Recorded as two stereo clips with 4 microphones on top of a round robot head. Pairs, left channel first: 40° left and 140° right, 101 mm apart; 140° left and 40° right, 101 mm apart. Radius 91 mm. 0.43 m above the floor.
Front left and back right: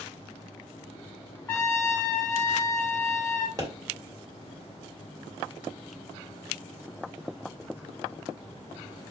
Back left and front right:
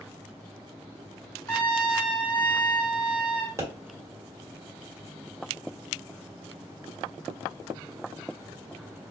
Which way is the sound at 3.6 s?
90° right.